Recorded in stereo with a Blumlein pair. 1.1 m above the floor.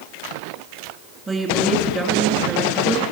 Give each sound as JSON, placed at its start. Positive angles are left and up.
{"t": 1.3, "sound": "a woman speaking", "azimuth_deg": -20, "distance_m": 2.5}